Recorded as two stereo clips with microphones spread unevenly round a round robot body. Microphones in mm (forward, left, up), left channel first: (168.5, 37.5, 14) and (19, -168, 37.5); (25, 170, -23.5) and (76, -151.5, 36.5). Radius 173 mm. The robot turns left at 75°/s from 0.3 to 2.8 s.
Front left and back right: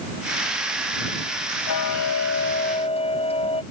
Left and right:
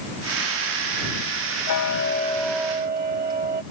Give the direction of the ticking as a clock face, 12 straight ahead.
10 o'clock.